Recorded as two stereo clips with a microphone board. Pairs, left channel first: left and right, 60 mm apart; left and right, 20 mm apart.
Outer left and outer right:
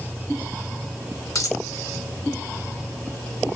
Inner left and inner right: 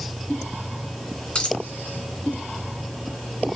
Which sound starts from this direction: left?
A dropped coin, at 1.4 s.